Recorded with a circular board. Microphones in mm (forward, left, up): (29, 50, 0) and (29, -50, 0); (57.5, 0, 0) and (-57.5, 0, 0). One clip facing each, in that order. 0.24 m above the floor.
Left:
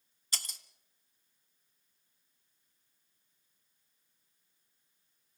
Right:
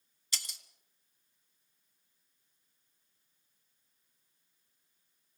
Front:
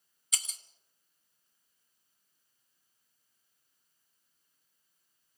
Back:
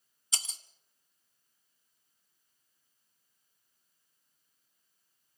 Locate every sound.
0.3 s breaking glass: 125° left, 1.2 m